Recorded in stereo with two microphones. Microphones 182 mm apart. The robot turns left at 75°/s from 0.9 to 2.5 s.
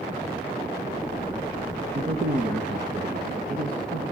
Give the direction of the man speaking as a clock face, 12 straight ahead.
1 o'clock.